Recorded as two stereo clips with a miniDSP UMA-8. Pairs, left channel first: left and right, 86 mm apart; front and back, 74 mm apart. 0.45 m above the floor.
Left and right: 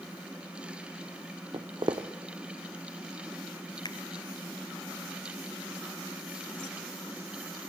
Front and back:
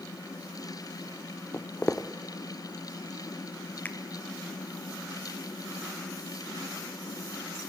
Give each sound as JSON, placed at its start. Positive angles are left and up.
{"t": 1.5, "sound": "footsteps", "azimuth_deg": -65, "distance_m": 1.2}
{"t": 3.9, "sound": "a finger snap", "azimuth_deg": 65, "distance_m": 1.6}